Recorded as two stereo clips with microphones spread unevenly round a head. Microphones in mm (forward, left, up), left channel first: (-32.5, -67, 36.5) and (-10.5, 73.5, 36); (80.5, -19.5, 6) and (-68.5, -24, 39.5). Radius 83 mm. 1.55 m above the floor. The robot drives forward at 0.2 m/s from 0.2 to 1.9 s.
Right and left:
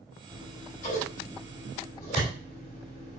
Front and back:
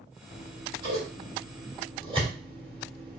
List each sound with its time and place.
0.3 s scissors: 130° right, 2.5 m; by 3.2 s 135° right, 2.5 m